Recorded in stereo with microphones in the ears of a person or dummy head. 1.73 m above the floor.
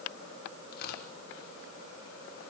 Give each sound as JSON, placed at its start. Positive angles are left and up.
{"t": 0.7, "sound": "tearing paper", "side_deg": 50, "distance_m": 5.0}